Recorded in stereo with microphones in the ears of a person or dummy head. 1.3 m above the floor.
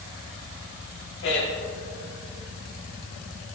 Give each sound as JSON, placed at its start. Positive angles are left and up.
{"t": 1.2, "sound": "a man speaking", "side_deg": 65, "distance_m": 3.0}